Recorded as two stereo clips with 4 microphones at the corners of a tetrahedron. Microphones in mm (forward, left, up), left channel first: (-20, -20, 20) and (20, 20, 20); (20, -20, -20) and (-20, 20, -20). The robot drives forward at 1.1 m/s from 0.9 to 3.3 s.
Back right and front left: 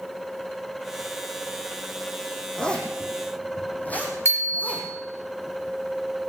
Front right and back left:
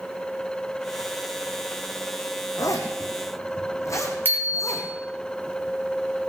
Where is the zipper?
60° right, 3 m; by 4.9 s 75° right, 2.5 m.